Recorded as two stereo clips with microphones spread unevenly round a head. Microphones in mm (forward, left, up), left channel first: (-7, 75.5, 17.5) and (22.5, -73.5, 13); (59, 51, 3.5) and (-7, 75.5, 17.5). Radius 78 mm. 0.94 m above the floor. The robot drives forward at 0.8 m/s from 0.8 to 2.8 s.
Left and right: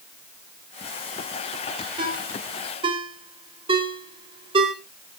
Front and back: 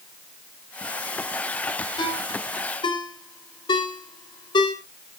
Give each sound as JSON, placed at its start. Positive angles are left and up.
{"t": 2.0, "sound": "a ringtone", "azimuth_deg": -20, "distance_m": 4.0}